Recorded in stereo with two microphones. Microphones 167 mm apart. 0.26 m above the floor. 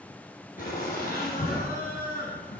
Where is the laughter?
60° left (ahead or behind), 3.5 m; by 2.6 s 55° left (ahead or behind), 1.7 m.